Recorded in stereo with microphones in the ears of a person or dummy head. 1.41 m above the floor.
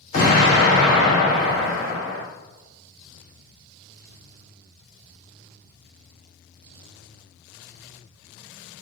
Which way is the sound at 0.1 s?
45° left (ahead or behind).